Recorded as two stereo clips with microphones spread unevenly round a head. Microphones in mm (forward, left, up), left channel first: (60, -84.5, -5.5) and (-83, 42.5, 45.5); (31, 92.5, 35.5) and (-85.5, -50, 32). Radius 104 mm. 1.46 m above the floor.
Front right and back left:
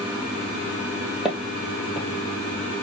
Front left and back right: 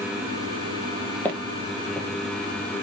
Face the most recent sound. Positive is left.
turn(degrees=110)